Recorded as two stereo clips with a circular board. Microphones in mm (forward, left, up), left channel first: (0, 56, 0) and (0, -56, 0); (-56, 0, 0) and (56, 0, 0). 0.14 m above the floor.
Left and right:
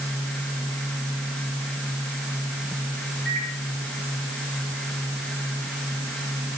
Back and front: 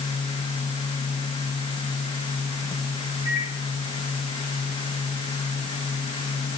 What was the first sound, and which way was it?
A microwave, 170° left.